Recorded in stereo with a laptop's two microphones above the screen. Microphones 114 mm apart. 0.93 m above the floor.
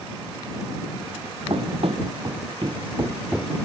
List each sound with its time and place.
1.5 s running footsteps: 65° right (ahead or behind); by 3.5 s 5° right (ahead or behind)